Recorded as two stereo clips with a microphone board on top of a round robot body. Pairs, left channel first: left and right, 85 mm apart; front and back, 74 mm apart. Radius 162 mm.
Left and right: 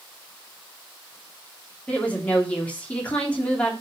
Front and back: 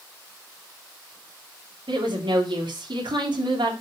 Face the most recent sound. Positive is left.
turn(degrees=165)